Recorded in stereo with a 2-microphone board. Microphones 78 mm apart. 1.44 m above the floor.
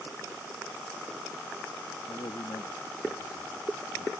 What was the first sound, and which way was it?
A man speaking, 85° left.